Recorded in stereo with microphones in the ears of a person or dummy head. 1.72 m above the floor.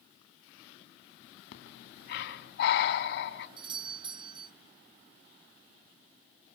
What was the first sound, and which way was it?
Breathing, 75° left (ahead or behind).